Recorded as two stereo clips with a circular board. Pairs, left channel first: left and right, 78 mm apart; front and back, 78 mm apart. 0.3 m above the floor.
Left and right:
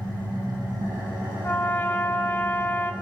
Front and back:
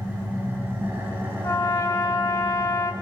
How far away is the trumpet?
About 0.7 m.